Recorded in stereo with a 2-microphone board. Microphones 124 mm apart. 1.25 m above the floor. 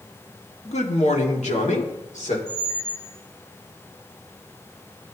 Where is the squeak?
65° left (ahead or behind), 4.5 m.